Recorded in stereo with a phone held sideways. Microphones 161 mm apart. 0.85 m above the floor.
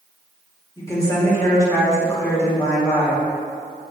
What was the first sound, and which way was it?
A woman speaking, 20° left (ahead or behind).